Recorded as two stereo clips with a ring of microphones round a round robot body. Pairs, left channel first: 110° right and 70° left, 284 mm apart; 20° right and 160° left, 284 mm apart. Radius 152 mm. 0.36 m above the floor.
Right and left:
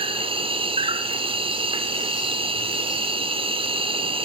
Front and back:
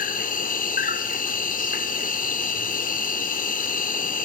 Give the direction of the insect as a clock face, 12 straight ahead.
12 o'clock.